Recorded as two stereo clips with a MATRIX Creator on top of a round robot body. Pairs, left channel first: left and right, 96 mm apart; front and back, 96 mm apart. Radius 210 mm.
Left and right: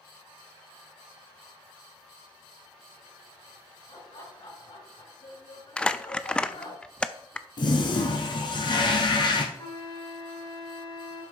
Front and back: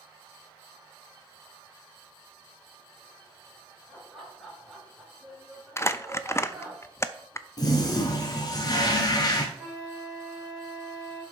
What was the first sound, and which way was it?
Laughter, 90° left.